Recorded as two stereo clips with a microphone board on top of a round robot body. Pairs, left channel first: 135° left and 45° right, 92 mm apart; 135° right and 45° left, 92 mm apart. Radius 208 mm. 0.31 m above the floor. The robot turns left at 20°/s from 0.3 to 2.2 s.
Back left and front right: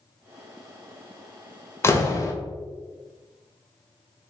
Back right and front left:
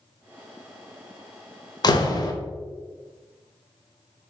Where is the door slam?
170° right, 0.9 m; by 2.3 s 175° right, 0.9 m.